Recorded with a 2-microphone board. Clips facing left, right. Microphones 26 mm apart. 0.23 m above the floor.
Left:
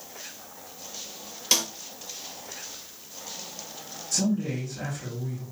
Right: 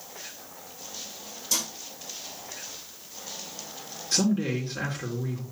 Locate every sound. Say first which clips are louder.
1.5 s a snare drum: left 5 dB; 60° left (ahead or behind), 3 m
4.1 s a man speaking: right 2 dB; 45° right (ahead or behind), 4 m